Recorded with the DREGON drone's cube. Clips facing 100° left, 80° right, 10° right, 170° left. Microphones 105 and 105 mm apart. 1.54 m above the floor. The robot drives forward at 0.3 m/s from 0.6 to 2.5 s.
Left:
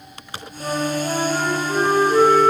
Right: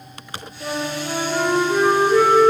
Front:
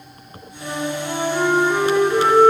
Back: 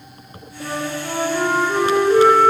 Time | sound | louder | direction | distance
0.6 | a flute | left 3 dB, front 1 dB | 165° left | 2 m